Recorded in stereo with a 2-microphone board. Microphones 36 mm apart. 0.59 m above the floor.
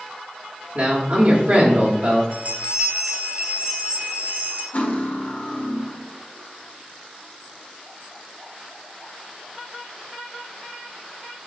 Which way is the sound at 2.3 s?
45° right (ahead or behind).